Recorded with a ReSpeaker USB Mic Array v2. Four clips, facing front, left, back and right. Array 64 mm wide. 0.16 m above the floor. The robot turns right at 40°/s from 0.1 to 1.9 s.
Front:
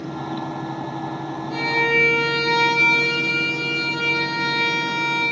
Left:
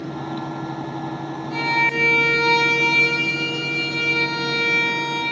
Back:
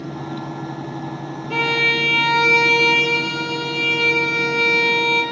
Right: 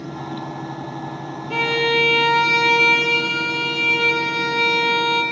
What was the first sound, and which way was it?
A violin, 140° right.